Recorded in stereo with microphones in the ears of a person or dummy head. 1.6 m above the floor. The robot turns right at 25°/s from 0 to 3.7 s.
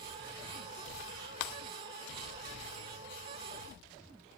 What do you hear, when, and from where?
1.4 s breaking glass: 50° left (ahead or behind), 1.5 m